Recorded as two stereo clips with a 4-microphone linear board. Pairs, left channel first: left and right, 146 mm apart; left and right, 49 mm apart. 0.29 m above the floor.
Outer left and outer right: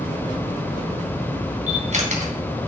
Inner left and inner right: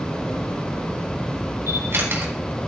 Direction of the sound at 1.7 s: 55° right (ahead or behind).